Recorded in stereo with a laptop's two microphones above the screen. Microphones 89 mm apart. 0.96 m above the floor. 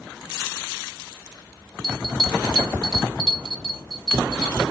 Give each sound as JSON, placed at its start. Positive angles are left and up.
{"t": 1.8, "sound": "a bell", "side_deg": 0, "distance_m": 1.7}